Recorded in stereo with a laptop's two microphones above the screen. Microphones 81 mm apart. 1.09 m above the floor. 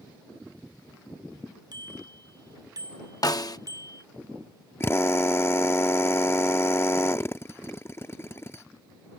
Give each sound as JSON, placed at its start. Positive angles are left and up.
{"t": 1.7, "sound": "a bicycle bell", "side_deg": -60}
{"t": 3.2, "sound": "a snare drum", "side_deg": 50}
{"t": 4.8, "sound": "a drill", "side_deg": 30}